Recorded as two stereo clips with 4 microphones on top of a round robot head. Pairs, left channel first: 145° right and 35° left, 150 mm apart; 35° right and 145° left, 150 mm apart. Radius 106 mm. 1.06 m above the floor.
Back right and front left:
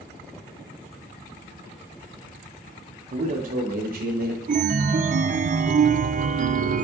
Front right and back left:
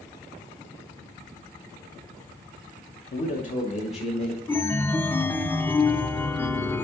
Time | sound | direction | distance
3.1 | a man speaking | 10° right | 0.9 m
4.5 | a chime | 35° left | 0.5 m